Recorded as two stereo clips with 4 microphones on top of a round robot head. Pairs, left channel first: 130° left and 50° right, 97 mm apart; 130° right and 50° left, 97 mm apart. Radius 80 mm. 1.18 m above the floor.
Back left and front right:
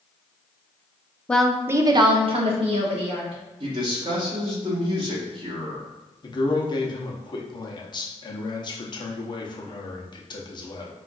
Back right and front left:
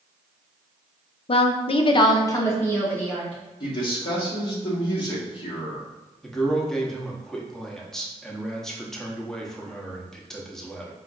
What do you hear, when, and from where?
1.3 s a woman speaking: 150° right, 0.5 m; by 3.4 s 50° right, 1.2 m
3.6 s a man speaking: 90° right, 1.4 m
6.2 s a man speaking: 145° left, 0.9 m